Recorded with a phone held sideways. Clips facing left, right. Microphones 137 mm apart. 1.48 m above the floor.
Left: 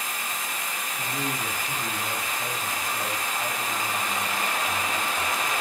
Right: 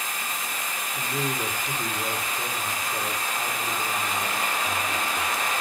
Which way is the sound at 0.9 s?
75° right (ahead or behind).